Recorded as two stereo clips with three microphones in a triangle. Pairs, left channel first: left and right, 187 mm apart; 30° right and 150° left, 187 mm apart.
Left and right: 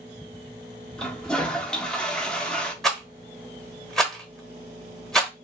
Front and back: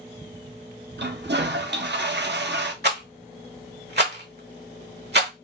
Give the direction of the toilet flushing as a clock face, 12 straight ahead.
6 o'clock.